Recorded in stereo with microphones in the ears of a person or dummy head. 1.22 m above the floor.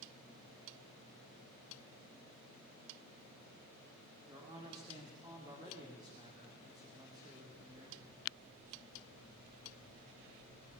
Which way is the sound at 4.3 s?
20° right (ahead or behind).